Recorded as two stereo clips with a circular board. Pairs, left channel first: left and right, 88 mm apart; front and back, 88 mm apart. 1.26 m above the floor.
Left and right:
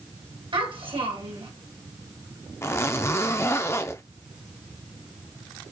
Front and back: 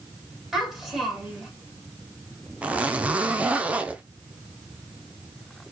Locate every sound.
0.5 s a child speaking: 95° right, 1.6 m
2.6 s a zipper: 115° left, 0.5 m